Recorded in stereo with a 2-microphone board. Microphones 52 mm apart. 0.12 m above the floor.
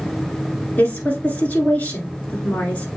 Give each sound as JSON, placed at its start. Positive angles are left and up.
{"t": 0.8, "sound": "a woman speaking", "side_deg": 30, "distance_m": 1.4}